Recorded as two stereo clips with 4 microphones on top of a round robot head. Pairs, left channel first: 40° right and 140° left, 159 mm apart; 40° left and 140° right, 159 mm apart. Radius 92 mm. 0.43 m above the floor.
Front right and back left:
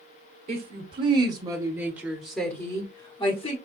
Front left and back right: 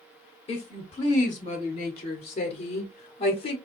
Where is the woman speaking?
100° left, 1.7 m; by 3.6 s 5° right, 1.4 m.